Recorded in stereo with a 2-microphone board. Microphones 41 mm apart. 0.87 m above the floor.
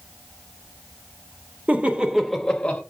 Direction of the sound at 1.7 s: 40° right (ahead or behind).